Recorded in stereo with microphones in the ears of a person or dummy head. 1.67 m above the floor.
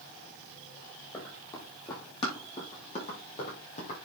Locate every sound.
1.1 s running footsteps: 20° left (ahead or behind), 5.5 m; by 4.0 s 50° left (ahead or behind), 5.5 m